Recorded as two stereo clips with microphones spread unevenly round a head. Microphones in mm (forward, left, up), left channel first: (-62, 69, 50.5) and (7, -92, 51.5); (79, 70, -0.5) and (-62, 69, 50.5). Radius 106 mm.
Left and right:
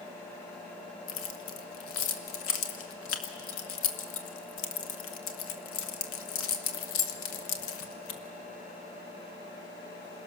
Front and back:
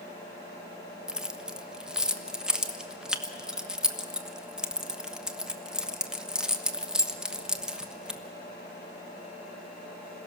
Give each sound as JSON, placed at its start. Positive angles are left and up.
{"t": 1.1, "sound": "keys jangling", "azimuth_deg": 100, "distance_m": 1.3}